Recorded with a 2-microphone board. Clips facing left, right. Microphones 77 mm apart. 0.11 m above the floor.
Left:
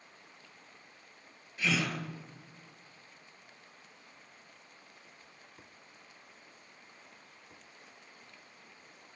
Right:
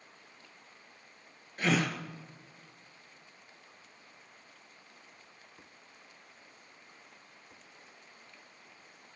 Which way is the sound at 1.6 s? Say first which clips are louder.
Right 3 dB; 50° right (ahead or behind).